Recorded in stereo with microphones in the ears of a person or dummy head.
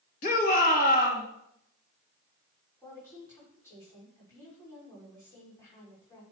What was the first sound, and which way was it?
A shout, 50° left (ahead or behind).